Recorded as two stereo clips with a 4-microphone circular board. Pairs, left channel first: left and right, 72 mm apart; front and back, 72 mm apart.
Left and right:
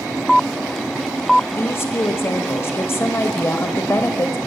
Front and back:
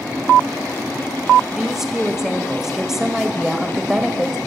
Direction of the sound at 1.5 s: 100° left.